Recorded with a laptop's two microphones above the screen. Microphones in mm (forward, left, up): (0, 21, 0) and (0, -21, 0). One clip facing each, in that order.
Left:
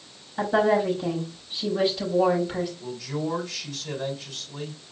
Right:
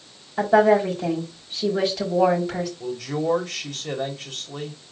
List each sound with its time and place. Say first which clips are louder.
0.4 s a woman speaking: right 5 dB; 75° right (ahead or behind), 4 m
2.8 s a man speaking: right 4 dB; 55° right (ahead or behind), 3 m